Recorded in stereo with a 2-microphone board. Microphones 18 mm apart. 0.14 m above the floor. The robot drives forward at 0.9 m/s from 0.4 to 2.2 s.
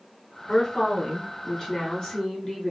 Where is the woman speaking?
45° left (ahead or behind), 2 m; by 2.7 s 35° left (ahead or behind), 2.5 m.